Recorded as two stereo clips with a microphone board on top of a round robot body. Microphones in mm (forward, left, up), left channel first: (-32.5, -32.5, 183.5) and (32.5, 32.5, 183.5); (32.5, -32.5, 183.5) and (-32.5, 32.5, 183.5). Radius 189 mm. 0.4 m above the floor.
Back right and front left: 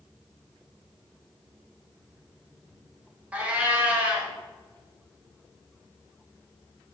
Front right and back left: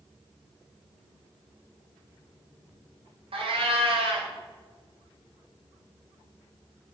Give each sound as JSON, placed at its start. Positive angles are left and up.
{"t": 3.3, "sound": "a cat meowing", "azimuth_deg": 120, "distance_m": 1.4}